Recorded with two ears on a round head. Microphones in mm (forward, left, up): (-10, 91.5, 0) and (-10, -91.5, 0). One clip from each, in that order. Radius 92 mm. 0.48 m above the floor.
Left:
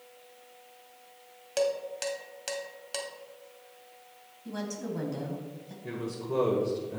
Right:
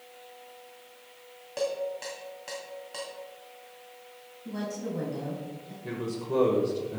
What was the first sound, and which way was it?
Dishes clattering, 75° left (ahead or behind).